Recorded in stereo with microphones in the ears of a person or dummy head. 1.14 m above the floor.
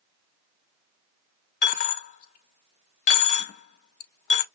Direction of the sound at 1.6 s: 45° left (ahead or behind).